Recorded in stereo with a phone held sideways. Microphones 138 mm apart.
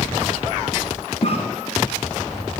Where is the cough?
45° left (ahead or behind), 1.4 m.